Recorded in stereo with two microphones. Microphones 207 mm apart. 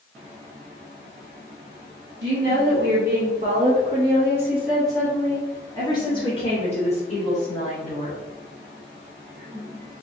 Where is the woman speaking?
55° right (ahead or behind), 1.4 m; by 8.2 s 40° left (ahead or behind), 2.5 m.